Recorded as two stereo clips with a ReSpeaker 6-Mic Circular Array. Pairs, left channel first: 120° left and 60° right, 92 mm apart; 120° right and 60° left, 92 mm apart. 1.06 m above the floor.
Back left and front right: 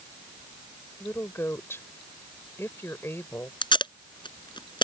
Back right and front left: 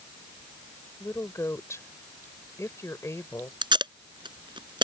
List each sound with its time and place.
1.0 s a woman speaking: 175° right
3.6 s tape being pulled: 90° left